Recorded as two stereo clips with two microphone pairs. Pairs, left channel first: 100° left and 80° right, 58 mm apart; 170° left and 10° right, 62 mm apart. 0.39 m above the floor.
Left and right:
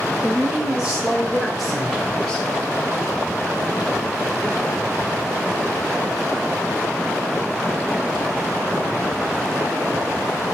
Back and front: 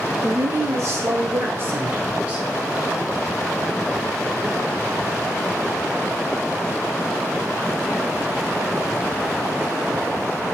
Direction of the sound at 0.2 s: 10° right.